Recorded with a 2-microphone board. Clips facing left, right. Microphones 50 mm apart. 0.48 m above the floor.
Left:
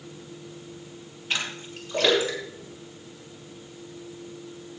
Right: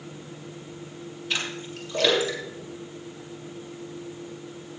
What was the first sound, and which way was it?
A splash, 30° left (ahead or behind).